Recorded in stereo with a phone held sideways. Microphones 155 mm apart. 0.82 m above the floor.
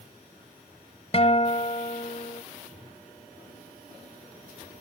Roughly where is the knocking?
No knocking in this recording.